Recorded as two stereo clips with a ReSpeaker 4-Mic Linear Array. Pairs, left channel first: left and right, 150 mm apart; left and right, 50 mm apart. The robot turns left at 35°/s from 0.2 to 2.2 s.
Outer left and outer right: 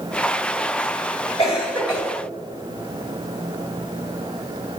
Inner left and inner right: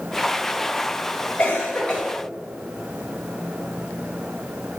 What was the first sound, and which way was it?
A cough, 40° left (ahead or behind).